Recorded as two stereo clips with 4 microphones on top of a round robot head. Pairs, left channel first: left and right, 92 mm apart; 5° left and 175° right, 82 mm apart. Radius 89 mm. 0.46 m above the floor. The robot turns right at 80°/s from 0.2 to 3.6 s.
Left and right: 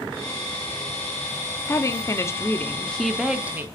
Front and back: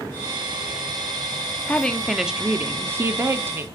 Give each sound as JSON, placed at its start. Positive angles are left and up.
{"t": 1.7, "sound": "a woman speaking", "azimuth_deg": 65, "distance_m": 0.8}